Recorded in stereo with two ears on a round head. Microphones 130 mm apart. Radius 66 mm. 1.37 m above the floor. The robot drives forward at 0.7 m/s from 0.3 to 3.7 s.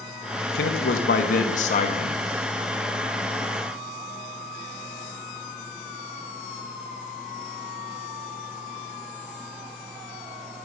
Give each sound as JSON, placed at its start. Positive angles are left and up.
{"t": 0.5, "sound": "a man speaking", "side_deg": 80, "distance_m": 1.3}